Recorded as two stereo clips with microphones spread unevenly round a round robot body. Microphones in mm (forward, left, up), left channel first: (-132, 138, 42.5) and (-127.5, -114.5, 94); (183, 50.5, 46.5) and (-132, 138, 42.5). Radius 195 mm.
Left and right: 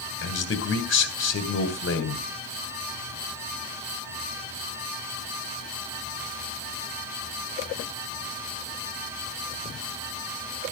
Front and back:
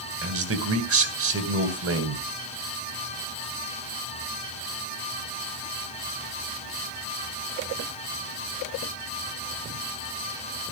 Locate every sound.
0.2 s a man speaking: 120° left, 3 m